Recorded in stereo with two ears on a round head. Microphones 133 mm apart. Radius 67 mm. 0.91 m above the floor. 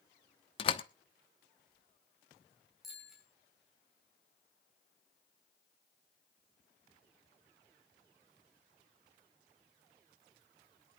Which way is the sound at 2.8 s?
Centre (ahead or behind).